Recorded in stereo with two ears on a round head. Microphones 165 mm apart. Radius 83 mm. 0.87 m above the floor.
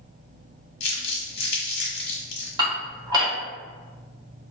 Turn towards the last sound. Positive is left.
turn(degrees=-25)  # may be behind; listen again after turning